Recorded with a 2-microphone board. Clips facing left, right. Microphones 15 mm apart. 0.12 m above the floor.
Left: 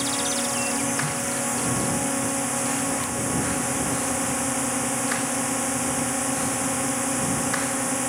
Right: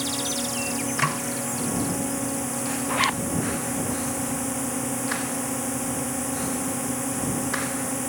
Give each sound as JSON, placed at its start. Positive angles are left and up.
{"t": 0.0, "sound": "a drone", "side_deg": 20}
{"t": 1.0, "sound": "a snare drum", "side_deg": -60}
{"t": 2.9, "sound": "a zipper", "side_deg": -45}